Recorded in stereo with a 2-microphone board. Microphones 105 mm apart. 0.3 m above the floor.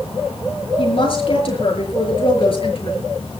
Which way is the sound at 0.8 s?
55° left (ahead or behind).